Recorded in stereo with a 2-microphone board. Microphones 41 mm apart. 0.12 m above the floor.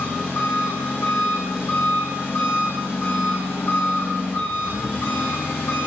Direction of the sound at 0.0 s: 75° left (ahead or behind).